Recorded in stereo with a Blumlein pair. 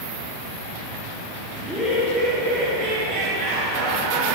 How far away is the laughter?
About 1.7 m.